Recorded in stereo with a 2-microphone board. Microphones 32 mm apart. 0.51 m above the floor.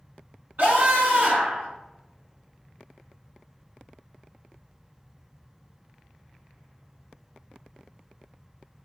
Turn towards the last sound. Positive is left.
turn(degrees=-80)